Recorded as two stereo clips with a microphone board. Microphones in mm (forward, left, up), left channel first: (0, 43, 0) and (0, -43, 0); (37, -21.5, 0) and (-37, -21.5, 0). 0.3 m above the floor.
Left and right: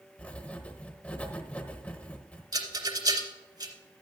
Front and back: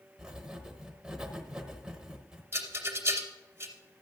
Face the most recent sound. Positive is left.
turn(degrees=-125)